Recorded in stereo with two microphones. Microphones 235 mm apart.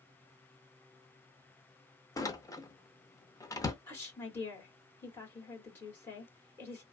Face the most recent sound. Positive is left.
turn(degrees=10)  # may be behind; listen again after turning